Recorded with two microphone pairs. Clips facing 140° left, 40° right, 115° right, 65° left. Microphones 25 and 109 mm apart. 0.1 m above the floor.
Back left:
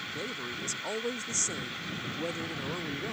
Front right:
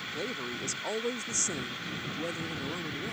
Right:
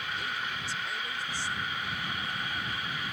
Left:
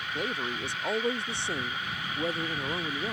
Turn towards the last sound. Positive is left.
turn(degrees=70)